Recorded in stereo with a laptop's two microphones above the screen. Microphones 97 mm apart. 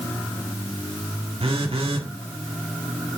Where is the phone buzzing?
75° right (ahead or behind), 1.8 m.